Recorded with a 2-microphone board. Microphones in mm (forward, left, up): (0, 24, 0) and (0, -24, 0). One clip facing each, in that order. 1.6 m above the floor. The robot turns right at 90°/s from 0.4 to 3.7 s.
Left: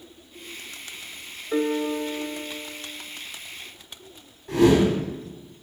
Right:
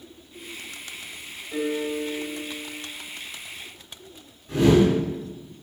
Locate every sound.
1.5 s a piano: 60° left, 1.0 m; by 2.9 s 175° right, 1.0 m
4.5 s a whoosh: 65° left (ahead or behind), 4 m